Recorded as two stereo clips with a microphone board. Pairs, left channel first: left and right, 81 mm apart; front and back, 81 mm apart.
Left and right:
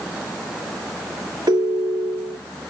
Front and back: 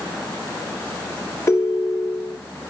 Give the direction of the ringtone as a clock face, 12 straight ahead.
2 o'clock.